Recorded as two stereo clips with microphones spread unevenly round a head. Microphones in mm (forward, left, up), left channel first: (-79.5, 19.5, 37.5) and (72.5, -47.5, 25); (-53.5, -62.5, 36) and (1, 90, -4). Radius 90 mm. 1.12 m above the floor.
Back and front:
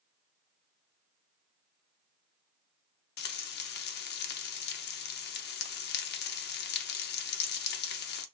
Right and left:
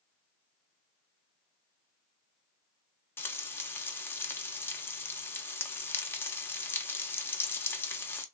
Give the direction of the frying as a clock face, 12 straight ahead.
6 o'clock.